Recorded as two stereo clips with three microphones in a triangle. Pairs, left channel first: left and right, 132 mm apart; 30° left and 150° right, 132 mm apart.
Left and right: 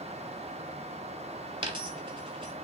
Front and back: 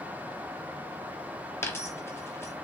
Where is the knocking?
No knocking in this recording.